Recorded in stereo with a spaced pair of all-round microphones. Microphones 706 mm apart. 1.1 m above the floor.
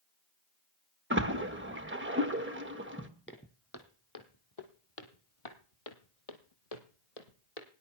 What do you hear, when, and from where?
1.1 s a splash: 15° right (ahead or behind), 1.2 m
3.3 s footsteps: 15° left (ahead or behind), 2 m; by 7.7 s 60° left (ahead or behind), 2 m